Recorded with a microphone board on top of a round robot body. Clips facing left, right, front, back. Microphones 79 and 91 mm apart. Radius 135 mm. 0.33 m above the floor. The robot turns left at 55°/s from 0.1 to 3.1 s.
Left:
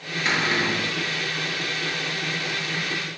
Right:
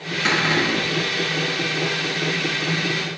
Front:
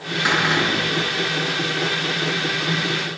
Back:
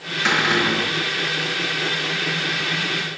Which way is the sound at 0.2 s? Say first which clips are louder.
Right 3 dB, even; 80° right.